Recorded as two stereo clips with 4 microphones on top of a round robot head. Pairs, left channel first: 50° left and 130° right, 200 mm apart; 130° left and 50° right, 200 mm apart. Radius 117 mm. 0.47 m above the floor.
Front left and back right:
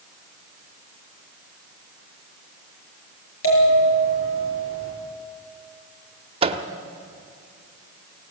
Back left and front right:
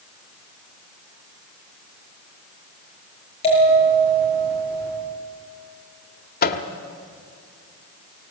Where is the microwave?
170° left, 1.1 m.